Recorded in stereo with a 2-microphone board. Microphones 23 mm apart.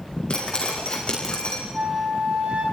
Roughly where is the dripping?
Left.